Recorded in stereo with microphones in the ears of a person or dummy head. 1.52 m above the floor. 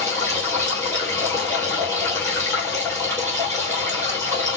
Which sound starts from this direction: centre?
Running water, at 0.0 s.